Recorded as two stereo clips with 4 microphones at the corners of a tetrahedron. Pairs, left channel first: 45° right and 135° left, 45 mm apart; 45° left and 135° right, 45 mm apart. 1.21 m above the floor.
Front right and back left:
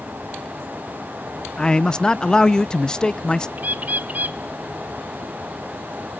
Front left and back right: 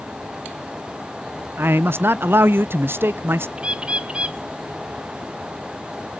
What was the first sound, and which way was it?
A man speaking, 115° right.